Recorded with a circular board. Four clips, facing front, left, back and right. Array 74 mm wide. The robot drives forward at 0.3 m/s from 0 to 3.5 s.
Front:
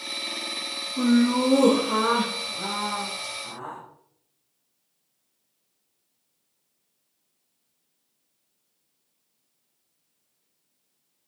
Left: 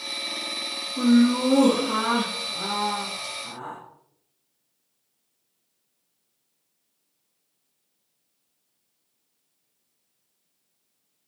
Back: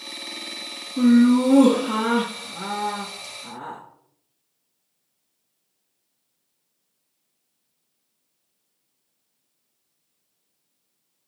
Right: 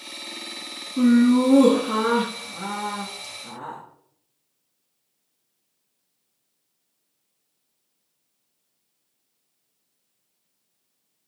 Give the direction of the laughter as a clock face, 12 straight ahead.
5 o'clock.